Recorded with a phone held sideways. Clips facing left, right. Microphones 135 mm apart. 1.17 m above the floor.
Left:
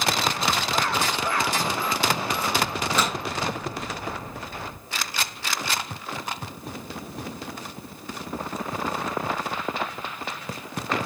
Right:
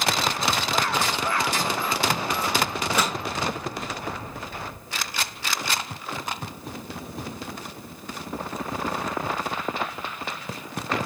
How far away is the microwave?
About 10 m.